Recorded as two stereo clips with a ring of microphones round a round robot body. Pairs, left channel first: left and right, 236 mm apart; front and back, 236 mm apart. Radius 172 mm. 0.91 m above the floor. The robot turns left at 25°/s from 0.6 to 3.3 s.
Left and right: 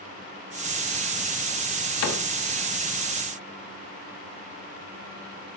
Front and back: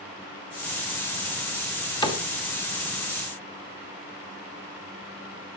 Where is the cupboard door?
70° left, 2.5 m; by 2.2 s 65° left, 2.5 m.